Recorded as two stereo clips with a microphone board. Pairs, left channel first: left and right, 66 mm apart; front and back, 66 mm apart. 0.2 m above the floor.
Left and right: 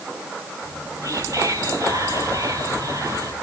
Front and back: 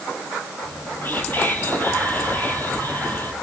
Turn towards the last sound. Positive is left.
turn(degrees=-60)